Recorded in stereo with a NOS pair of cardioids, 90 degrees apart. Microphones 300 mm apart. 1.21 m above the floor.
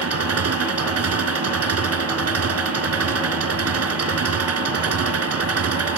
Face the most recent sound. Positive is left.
turn(degrees=-50)